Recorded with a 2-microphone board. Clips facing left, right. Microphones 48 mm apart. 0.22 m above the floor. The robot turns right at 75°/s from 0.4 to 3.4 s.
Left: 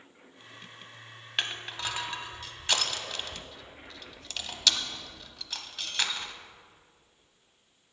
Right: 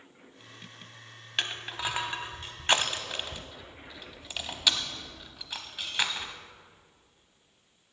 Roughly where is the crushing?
Centre.